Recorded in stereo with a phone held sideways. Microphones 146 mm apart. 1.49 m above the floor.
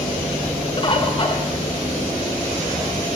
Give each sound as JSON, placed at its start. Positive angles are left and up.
{"t": 0.8, "sound": "a bird", "side_deg": 35, "distance_m": 0.5}